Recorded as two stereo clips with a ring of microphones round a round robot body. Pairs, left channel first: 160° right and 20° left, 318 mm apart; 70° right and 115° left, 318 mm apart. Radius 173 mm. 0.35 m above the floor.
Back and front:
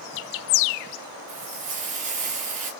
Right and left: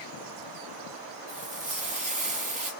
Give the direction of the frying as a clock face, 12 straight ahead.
11 o'clock.